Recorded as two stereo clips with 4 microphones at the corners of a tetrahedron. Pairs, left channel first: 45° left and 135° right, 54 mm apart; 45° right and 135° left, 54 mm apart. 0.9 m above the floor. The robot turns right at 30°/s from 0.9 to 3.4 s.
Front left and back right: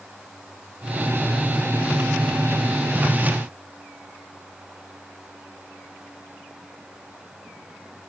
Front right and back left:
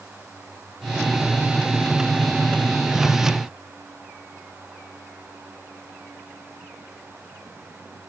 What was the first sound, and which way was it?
Only background noise.